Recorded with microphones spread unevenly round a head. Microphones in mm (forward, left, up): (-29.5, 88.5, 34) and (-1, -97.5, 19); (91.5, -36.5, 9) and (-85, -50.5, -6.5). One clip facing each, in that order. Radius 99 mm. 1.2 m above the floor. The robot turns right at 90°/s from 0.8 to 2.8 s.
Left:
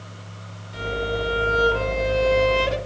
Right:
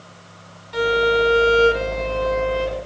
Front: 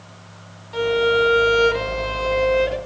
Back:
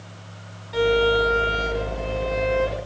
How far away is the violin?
About 1.3 m.